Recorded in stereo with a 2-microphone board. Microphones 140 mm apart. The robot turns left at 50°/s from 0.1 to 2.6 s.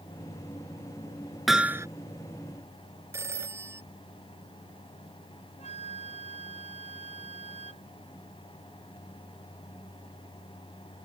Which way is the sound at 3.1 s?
15° right (ahead or behind).